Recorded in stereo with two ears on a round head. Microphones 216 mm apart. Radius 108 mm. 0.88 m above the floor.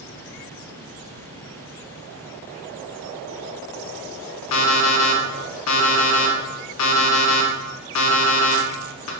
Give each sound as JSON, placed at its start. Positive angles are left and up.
{"t": 4.5, "sound": "an alarm clock", "side_deg": 70, "distance_m": 0.7}